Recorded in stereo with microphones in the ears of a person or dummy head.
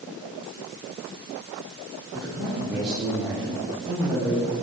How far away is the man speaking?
About 2.5 m.